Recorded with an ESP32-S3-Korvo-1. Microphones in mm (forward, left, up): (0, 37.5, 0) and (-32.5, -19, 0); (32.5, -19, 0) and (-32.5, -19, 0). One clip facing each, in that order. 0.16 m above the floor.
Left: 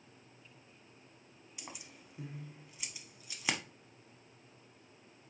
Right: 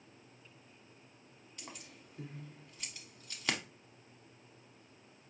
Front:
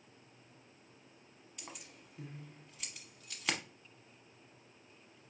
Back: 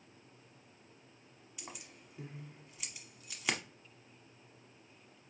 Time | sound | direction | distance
1.6 | keys jangling | 105° left | 0.8 m